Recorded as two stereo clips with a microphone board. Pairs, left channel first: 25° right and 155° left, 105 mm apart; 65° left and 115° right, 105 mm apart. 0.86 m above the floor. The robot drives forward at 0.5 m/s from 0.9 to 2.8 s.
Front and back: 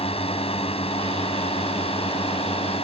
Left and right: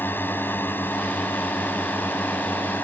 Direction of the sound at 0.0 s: 5° right.